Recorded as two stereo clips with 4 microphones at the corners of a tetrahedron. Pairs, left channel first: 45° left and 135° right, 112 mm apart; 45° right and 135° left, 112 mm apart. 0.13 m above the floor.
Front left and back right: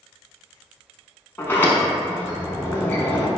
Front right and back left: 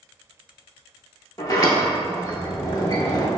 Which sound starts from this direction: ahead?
A sliding door, at 1.4 s.